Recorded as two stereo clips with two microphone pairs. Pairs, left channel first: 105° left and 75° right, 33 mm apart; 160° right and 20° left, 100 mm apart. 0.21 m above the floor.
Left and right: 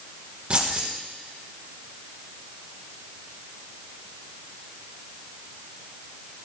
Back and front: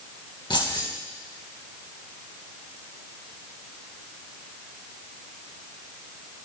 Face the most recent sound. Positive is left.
turn(degrees=-130)